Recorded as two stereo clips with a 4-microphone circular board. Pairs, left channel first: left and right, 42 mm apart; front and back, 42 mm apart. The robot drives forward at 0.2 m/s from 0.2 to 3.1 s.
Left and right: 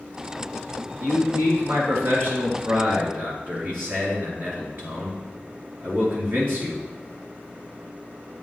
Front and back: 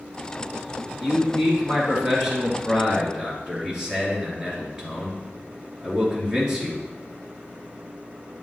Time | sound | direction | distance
1.0 | a man speaking | 100° right | 2.5 m